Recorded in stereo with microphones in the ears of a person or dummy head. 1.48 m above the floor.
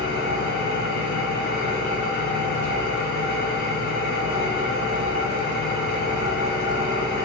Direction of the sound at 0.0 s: 70° left (ahead or behind).